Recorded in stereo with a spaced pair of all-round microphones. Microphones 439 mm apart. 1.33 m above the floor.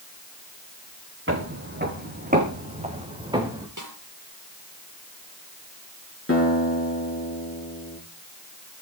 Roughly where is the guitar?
Left.